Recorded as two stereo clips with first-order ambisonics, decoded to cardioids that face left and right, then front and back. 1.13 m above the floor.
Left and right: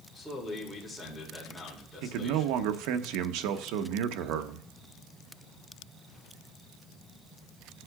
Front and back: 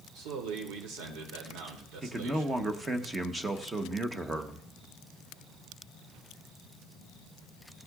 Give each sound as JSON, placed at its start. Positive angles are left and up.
{"t": 0.1, "sound": "a man speaking", "azimuth_deg": 175, "distance_m": 2.5}
{"t": 2.0, "sound": "a man speaking", "azimuth_deg": -100, "distance_m": 0.9}